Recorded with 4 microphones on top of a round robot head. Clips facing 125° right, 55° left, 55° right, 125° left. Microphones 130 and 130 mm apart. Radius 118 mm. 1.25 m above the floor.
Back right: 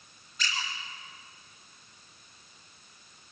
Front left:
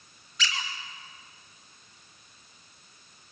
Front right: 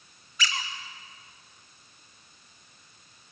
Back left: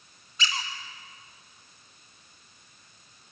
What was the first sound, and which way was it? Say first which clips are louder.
A squeak: front left 2 dB, even; 60° left.